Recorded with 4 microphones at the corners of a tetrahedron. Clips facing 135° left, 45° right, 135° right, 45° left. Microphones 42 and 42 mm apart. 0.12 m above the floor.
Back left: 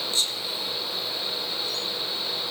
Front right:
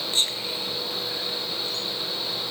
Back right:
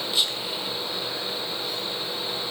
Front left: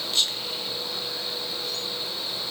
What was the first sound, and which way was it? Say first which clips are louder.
Whispering: front right 4 dB, even; 60° right.